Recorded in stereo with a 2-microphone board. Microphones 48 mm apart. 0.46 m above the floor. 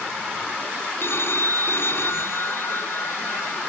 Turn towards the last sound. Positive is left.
turn(degrees=60)  # may be behind; listen again after turning